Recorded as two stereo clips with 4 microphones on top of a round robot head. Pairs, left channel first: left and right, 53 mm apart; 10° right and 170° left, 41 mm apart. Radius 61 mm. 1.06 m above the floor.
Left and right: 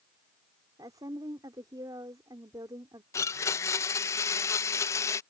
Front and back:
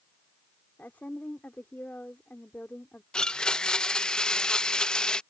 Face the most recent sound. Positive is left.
turn(degrees=60)